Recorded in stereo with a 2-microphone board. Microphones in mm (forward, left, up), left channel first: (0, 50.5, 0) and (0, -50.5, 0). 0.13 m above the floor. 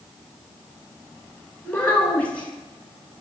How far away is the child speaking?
About 0.7 m.